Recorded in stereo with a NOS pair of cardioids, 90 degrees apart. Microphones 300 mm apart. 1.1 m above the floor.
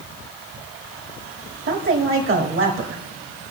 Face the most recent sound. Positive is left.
turn(degrees=-45)